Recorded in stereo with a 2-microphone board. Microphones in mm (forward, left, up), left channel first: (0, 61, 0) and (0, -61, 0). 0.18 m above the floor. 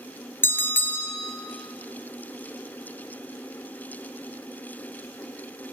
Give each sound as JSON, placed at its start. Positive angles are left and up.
{"t": 0.4, "sound": "a bell", "side_deg": 20, "distance_m": 1.0}